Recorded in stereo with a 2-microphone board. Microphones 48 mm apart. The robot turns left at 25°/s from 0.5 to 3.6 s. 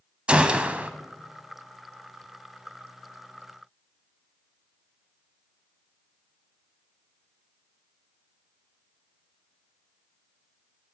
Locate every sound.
0.3 s a gunshot: 20° right (ahead or behind), 0.8 m; by 0.9 s 30° right (ahead or behind), 0.8 m